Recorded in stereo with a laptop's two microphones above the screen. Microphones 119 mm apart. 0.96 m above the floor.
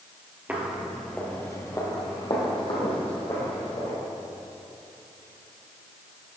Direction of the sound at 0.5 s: 15° right (ahead or behind).